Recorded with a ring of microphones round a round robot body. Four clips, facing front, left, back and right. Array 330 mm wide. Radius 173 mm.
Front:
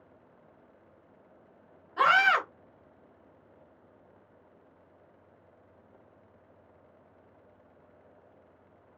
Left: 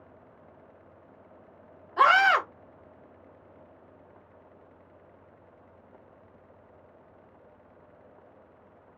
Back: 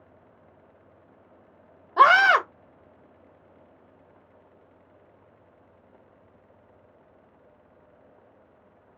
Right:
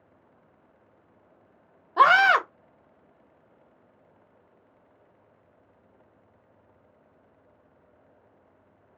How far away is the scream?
About 1.3 m.